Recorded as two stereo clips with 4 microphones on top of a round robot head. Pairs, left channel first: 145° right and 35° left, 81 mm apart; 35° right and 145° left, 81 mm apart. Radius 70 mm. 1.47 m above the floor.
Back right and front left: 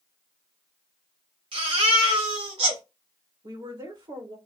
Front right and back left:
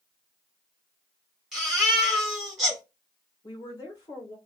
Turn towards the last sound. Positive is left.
turn(degrees=5)